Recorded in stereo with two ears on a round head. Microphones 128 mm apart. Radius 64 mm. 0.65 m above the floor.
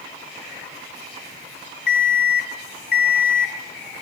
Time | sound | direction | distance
1.9 | an alarm clock | 65° left (ahead or behind) | 1.2 m